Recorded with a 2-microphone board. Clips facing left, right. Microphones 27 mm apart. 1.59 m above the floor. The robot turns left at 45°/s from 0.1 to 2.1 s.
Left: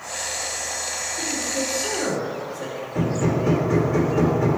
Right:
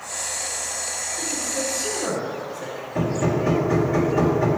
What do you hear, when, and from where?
1.2 s a man speaking: 165° left, 3.5 m; by 2.9 s 125° left, 3.5 m
3.0 s hammering: centre (ahead or behind), 2.0 m